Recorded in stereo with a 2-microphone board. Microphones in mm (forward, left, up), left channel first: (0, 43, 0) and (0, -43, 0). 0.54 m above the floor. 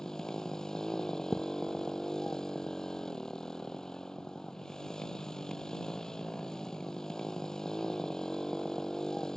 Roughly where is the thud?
Centre.